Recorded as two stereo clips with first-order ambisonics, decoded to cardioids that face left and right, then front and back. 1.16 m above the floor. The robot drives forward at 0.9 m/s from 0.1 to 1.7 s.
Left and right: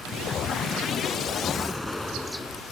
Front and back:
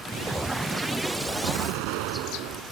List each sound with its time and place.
1.4 s an explosion: 175° left